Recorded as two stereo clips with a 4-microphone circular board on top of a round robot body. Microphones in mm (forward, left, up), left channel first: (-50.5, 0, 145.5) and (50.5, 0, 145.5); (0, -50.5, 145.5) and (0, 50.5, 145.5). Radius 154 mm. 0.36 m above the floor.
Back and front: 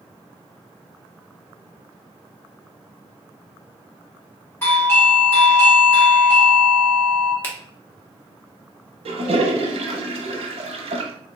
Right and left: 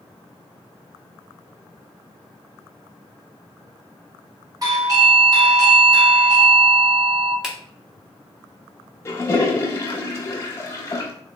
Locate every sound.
4.6 s a doorbell: 125° left, 1.9 m
7.4 s a finger snap: 160° left, 1.2 m
9.1 s a toilet flushing: 25° right, 0.6 m